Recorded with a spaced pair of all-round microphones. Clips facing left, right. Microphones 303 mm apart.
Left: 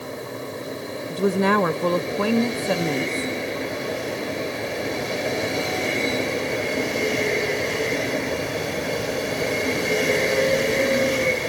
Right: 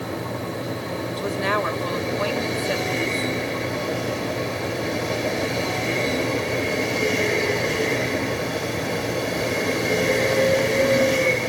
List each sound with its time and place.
0.0 s a fan: 80° right, 1.4 m
1.1 s a woman speaking: 55° left (ahead or behind), 1.0 m